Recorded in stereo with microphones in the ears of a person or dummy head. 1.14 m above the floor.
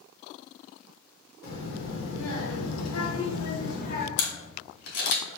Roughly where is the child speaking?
Left.